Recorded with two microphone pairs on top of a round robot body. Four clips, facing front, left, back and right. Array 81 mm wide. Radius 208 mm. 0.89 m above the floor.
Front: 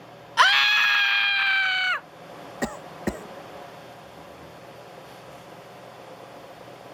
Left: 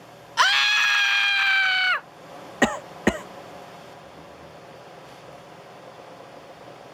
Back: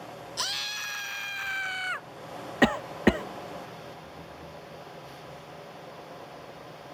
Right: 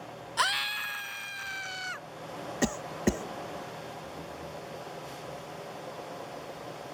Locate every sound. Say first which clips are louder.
0.4 s a scream: left 10 dB, front 20 dB; 25° left; by 2.1 s 70° left
2.6 s a cough: left 7 dB, back 7 dB; 110° left